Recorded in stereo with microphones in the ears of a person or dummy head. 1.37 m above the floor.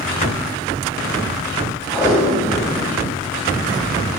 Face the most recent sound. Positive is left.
turn(degrees=20)  # may be behind; listen again after turning